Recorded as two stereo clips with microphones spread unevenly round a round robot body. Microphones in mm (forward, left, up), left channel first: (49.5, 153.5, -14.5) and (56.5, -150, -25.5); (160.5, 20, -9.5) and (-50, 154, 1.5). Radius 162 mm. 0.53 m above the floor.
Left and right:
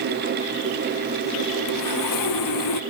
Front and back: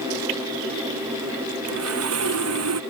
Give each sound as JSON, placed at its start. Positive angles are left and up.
{"t": 1.7, "sound": "sawing", "azimuth_deg": 125}